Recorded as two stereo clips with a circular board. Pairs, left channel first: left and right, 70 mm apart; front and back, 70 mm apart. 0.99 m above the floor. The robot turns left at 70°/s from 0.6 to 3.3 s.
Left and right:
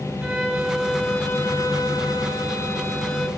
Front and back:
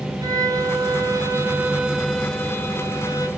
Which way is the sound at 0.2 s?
170° right.